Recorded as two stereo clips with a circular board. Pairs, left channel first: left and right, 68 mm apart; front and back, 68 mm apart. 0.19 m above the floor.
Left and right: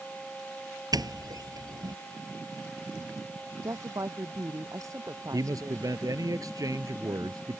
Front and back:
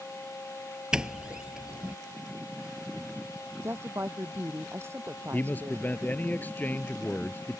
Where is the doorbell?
100° right.